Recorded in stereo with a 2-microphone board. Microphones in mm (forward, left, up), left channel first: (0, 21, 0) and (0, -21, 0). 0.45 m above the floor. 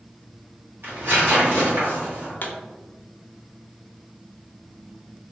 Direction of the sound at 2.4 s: 50° left (ahead or behind).